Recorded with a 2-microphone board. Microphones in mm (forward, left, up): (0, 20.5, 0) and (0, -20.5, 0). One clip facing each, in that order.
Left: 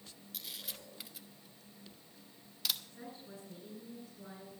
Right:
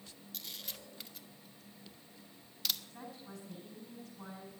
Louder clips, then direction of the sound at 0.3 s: Even; 5° left (ahead or behind).